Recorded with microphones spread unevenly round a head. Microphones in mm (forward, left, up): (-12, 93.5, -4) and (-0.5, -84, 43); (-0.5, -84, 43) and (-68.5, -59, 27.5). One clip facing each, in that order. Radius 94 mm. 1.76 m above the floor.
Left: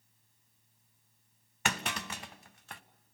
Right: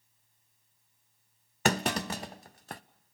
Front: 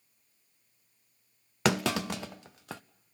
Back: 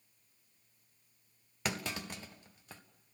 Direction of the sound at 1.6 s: 30° right.